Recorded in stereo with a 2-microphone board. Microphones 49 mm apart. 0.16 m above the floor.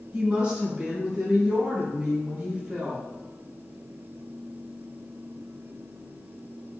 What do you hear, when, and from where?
0.1 s a woman speaking: 20° right (ahead or behind), 1.5 m